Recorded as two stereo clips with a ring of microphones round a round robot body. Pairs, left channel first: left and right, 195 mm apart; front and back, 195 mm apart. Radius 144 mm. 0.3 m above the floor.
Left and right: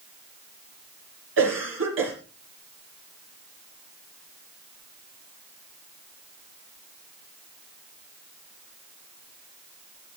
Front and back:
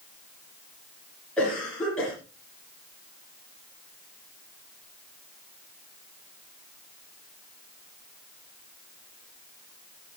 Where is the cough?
85° right, 8 m.